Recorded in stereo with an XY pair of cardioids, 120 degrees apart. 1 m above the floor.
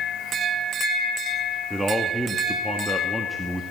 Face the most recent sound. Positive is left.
turn(degrees=-10)